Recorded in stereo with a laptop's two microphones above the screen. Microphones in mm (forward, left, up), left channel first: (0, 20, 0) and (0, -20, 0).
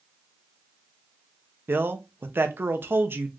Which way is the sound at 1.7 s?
60° right (ahead or behind).